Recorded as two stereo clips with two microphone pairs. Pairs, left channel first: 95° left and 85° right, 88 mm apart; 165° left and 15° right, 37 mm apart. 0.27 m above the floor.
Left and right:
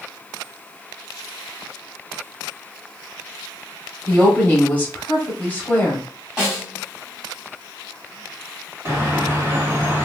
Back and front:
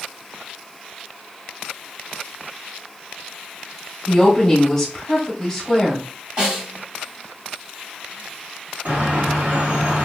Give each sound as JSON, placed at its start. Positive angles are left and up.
{"t": 4.1, "sound": "a woman speaking", "azimuth_deg": 125, "distance_m": 1.3}
{"t": 6.4, "sound": "a snare drum", "azimuth_deg": -5, "distance_m": 1.7}
{"t": 8.8, "sound": "a bird", "azimuth_deg": -35, "distance_m": 1.3}